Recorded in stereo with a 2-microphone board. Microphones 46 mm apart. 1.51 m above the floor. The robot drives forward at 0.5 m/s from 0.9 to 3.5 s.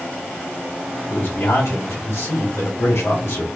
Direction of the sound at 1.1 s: 75° left (ahead or behind).